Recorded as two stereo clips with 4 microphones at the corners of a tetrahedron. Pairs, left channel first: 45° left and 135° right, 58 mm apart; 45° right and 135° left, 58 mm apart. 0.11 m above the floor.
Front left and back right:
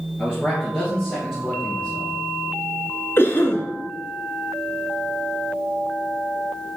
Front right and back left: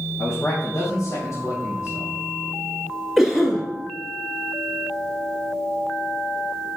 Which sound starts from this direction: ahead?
A man speaking, at 0.2 s.